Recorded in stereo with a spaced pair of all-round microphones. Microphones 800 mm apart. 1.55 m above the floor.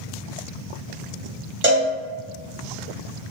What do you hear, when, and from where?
1.6 s a cowbell: 15° right (ahead or behind), 1.0 m